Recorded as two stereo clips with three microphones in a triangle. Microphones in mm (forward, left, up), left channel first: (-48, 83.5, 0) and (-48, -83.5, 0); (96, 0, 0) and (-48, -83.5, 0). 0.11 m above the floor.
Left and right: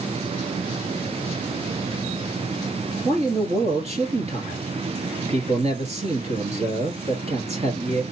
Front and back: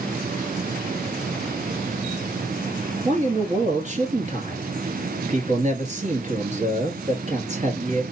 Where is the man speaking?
125° right, 1.6 m.